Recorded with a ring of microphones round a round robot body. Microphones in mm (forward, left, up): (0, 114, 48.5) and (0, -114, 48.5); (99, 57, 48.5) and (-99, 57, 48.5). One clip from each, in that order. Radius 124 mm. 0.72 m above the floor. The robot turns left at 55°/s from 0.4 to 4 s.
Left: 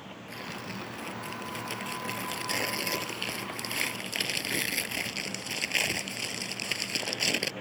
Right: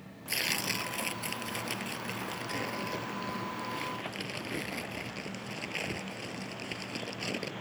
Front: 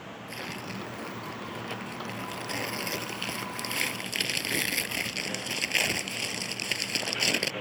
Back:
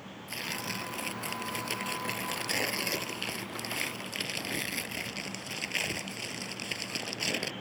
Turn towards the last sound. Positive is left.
turn(degrees=55)